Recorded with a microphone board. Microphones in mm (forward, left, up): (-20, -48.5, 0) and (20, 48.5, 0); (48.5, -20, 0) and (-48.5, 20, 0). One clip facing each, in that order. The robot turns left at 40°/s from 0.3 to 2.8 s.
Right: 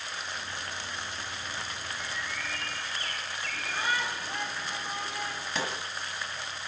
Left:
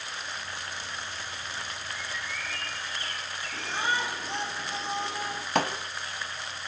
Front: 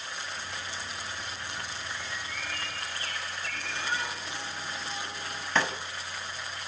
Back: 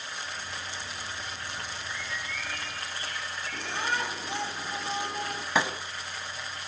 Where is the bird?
50° left, 4 m; by 4.3 s 10° left, 4 m.